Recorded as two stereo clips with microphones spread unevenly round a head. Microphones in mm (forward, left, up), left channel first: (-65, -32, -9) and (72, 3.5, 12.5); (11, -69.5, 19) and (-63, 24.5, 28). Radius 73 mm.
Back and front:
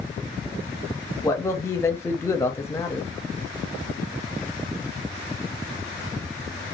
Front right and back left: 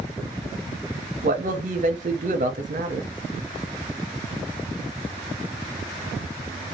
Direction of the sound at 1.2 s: 120° left.